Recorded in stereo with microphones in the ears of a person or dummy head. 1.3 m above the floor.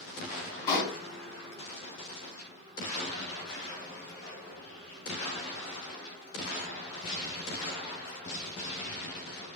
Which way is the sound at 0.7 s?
25° left (ahead or behind).